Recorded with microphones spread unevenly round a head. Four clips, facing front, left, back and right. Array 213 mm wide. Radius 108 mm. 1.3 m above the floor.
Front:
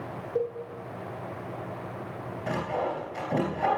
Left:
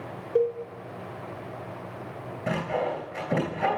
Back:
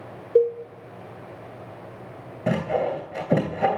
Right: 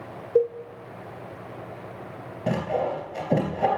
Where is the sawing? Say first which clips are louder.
Right 2 dB, back 6 dB; 160° right, 2.5 m.